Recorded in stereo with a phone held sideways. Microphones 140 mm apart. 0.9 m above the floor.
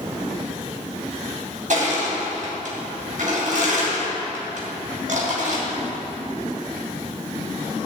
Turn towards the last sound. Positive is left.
turn(degrees=-65)  # may be behind; listen again after turning